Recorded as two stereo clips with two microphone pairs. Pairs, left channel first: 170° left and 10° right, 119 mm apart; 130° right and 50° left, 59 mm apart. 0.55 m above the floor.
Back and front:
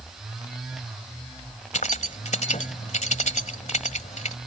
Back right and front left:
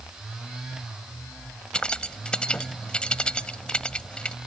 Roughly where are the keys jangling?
Behind left.